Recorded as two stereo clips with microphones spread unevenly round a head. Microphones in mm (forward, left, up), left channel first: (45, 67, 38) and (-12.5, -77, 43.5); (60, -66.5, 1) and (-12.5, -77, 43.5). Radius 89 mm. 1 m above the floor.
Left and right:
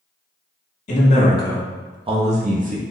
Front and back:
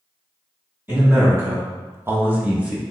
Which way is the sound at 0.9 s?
100° left.